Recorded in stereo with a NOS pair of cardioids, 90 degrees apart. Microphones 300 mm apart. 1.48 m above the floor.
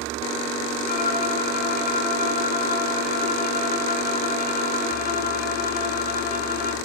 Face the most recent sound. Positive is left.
turn(degrees=30)